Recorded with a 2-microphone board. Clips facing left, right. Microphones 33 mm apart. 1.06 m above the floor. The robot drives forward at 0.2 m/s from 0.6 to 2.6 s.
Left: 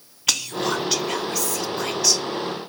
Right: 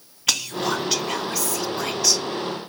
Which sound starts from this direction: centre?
Whispering, at 0.3 s.